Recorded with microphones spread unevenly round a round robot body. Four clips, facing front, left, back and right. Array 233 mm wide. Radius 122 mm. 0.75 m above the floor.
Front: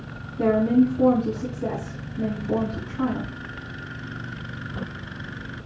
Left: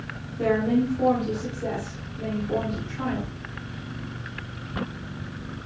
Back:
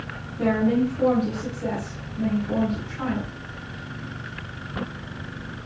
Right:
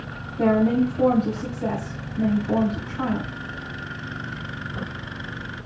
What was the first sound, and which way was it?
A woman speaking, 75° right.